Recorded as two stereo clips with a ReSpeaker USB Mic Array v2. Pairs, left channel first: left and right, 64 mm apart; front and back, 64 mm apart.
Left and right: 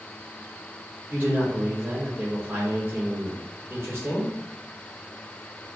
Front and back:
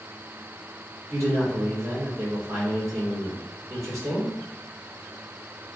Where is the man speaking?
150° right, 2 m.